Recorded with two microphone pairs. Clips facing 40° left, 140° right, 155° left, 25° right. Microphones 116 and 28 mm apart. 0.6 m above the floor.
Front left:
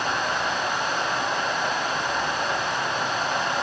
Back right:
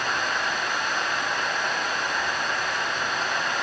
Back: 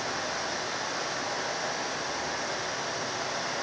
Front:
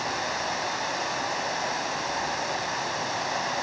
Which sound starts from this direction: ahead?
Running water, at 0.0 s.